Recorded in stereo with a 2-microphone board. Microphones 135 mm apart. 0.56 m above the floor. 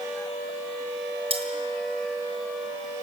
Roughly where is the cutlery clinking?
Right.